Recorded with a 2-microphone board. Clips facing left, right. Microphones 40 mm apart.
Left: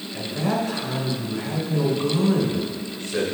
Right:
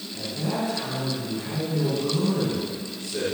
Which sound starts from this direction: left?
A man speaking, at 0.1 s.